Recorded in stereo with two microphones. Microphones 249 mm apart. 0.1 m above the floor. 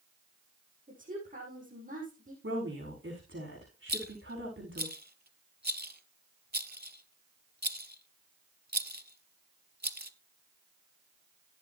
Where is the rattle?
40° right (ahead or behind), 0.6 m.